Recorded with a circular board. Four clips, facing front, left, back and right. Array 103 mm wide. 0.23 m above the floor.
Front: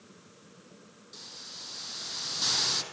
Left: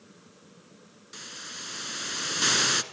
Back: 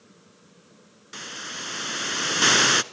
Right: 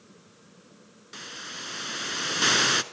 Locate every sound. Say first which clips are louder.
1.1 s a hiss: right 4 dB, back 17 dB; 165° right, 0.5 m